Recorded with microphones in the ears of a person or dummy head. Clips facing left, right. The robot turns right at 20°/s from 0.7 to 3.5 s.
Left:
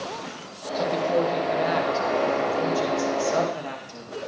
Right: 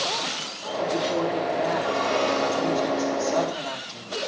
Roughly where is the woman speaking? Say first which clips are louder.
Left 2 dB; left.